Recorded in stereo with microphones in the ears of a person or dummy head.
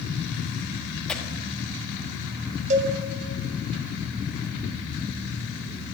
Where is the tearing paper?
5° left (ahead or behind), 1.2 m.